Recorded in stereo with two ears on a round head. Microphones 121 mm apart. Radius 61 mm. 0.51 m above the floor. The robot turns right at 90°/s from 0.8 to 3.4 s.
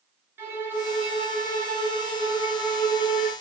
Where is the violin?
165° right, 3 m; by 3.3 s 65° left, 3 m.